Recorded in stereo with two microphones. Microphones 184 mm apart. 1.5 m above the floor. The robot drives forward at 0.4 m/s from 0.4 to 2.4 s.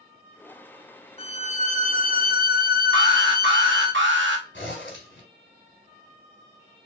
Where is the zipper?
75° left (ahead or behind), 3 m.